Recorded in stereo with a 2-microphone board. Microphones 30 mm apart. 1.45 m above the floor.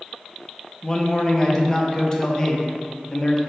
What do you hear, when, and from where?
0.8 s a man speaking: 20° left (ahead or behind), 0.6 m